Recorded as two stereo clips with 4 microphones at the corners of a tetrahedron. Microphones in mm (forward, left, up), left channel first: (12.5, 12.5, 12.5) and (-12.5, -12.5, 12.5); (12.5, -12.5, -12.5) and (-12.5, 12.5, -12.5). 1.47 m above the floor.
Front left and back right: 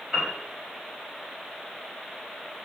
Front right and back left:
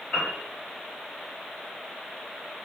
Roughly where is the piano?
Ahead right.